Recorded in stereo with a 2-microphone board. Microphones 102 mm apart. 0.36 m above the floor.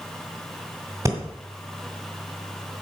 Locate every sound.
1.1 s breathing: 30° right (ahead or behind), 2 m